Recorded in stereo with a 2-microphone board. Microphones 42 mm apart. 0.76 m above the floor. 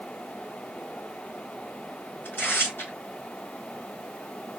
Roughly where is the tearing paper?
Left.